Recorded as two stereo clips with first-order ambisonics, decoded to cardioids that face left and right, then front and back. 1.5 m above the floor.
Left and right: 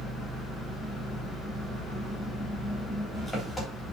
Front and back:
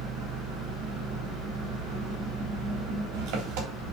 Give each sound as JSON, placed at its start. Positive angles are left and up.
{"t": 0.0, "sound": "an engine running", "azimuth_deg": 170, "distance_m": 3.5}